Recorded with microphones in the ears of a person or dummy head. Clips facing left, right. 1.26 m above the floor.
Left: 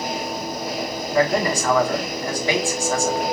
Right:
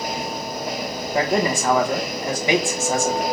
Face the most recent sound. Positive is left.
turn(degrees=-20)  # may be behind; listen again after turning